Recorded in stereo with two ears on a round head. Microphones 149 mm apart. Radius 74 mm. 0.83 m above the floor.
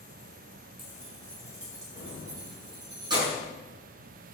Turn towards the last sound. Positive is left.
turn(degrees=-30)  # may be behind; listen again after turning